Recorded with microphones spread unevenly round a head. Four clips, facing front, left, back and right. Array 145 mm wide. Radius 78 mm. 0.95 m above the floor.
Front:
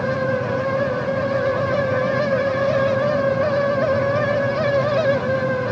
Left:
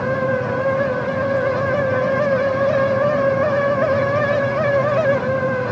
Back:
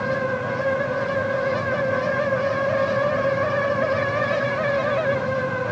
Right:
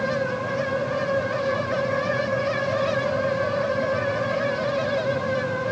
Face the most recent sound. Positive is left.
No sound to turn to.